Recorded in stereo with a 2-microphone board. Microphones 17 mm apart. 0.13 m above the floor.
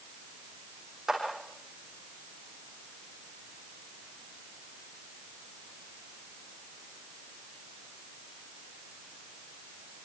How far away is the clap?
About 6 m.